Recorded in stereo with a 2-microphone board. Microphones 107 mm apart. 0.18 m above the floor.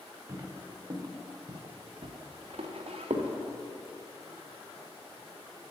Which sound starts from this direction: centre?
Footsteps, at 0.3 s.